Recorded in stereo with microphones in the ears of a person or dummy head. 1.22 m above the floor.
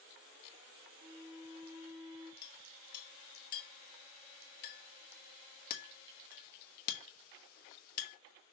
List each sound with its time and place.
1.0 s a flute: 75° right (ahead or behind), 2.5 m
2.4 s a clink: 50° left (ahead or behind), 1.5 m